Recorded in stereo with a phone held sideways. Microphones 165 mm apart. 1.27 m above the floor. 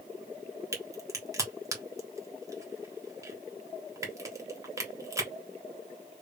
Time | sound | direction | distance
0.7 | a crack | 20° right (ahead or behind) | 1.2 m